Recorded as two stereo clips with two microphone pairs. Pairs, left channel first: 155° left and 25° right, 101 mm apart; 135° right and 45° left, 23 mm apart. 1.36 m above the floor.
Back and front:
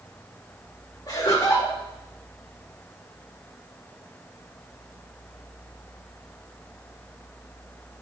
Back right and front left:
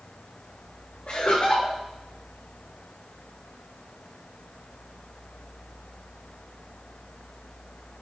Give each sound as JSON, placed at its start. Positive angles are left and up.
{"t": 1.1, "sound": "laughter", "azimuth_deg": -160, "distance_m": 2.0}